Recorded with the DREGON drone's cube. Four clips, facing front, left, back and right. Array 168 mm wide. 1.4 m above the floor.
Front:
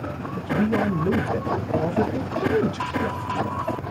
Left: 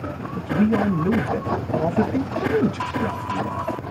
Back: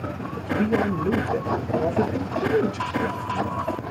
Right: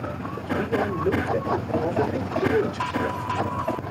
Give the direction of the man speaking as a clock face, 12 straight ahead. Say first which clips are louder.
Left 5 dB, even; 9 o'clock.